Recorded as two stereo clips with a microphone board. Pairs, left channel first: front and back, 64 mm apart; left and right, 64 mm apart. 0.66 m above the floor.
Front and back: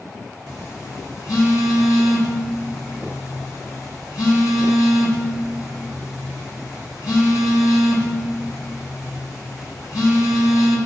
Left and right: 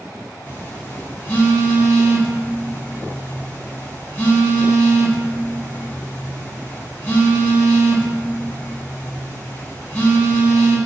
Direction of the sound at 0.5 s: 30° left.